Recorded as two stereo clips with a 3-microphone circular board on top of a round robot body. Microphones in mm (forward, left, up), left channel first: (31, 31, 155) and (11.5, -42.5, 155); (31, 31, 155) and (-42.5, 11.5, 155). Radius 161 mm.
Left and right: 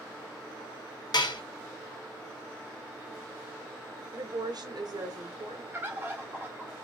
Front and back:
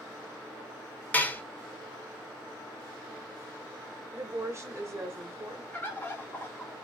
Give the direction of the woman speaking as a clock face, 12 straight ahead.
4 o'clock.